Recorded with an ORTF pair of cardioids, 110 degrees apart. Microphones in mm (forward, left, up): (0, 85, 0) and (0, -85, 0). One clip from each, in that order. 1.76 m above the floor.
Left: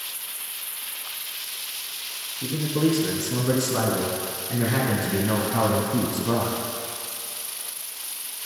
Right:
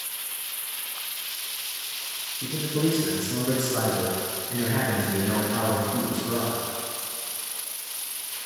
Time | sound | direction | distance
2.4 | a man speaking | 10° left | 3 m